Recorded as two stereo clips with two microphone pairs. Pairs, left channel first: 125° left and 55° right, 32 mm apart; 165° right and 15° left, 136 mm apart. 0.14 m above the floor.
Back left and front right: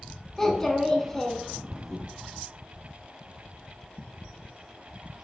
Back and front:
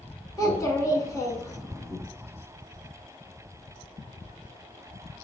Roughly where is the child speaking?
Behind.